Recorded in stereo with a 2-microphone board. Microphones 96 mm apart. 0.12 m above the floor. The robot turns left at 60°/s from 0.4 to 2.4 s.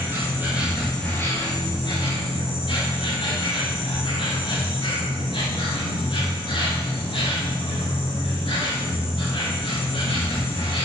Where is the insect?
155° right, 4.5 m; by 10.8 s 85° left, 4.5 m.